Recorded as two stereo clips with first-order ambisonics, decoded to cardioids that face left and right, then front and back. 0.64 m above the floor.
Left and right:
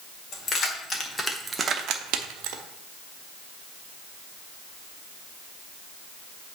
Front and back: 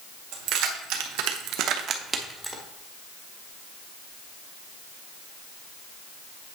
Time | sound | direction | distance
0.3 | keys jangling | 155° left | 1.6 m